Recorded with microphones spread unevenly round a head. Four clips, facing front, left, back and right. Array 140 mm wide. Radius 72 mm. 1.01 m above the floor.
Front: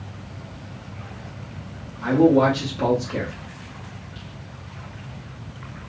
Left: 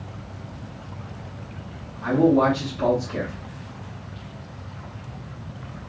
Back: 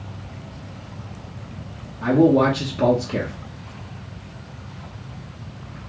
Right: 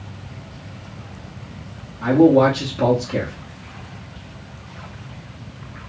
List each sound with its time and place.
2.0 s a man speaking: 130° right, 1.0 m